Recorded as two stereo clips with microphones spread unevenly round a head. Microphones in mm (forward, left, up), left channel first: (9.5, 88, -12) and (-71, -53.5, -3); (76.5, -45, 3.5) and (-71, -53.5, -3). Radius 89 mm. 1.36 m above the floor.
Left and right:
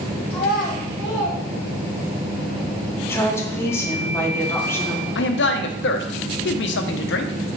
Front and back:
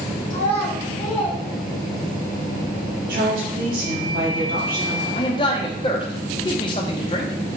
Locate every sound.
0.3 s a child speaking: 25° right, 1.8 m; by 2.2 s 55° right, 1.9 m
3.1 s a woman speaking: 135° left, 1.2 m
5.2 s a man speaking: 65° left, 0.6 m